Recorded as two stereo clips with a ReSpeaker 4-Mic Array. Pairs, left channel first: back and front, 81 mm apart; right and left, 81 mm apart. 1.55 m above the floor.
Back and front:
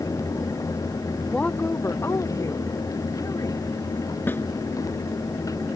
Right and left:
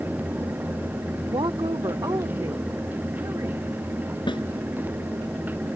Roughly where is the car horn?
I don't hear a car horn.